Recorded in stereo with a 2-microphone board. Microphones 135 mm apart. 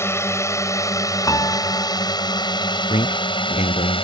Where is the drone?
20° left (ahead or behind); by 4.0 s 40° left (ahead or behind).